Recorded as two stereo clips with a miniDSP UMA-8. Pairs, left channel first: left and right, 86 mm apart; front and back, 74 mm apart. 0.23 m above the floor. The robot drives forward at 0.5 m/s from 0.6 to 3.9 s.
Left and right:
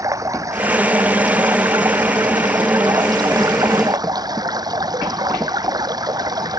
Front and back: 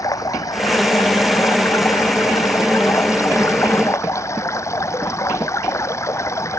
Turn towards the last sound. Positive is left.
turn(degrees=-50)